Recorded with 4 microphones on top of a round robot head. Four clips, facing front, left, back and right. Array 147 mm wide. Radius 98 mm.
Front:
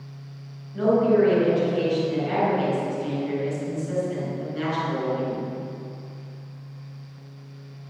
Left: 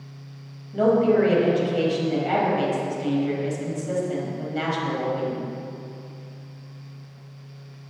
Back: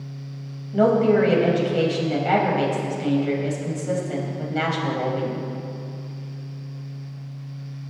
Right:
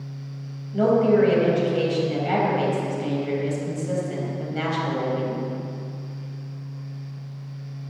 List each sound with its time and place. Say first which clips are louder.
0.7 s a woman speaking: even, back 2 dB; 170° left, 5.5 m